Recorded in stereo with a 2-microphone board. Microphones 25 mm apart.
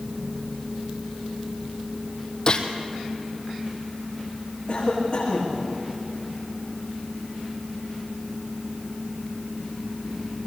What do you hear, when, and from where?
2.5 s a gunshot: 35° left (ahead or behind), 1.8 m
4.7 s a cough: 35° left (ahead or behind), 8.5 m